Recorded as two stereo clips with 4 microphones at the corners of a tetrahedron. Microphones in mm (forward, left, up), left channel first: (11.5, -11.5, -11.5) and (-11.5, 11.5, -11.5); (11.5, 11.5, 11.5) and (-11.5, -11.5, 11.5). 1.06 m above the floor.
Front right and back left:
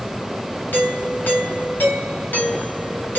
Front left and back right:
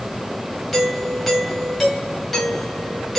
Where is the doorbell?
45° right, 3 m.